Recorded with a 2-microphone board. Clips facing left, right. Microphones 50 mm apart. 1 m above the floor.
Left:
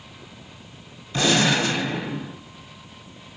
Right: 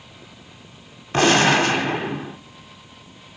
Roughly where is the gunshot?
Right.